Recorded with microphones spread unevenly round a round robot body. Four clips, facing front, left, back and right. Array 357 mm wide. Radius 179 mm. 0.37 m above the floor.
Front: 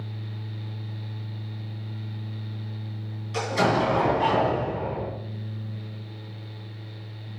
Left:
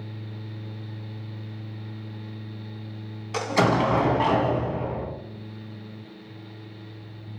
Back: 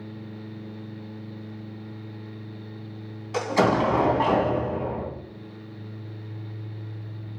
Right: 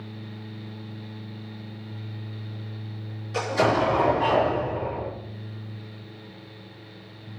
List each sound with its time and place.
3.3 s an explosion: 105° left, 2.5 m